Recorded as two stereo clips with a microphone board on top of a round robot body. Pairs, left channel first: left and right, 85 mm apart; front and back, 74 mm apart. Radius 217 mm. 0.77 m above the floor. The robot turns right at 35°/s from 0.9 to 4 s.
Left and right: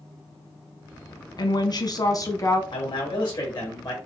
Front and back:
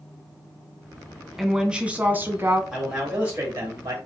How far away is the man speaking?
About 2.0 m.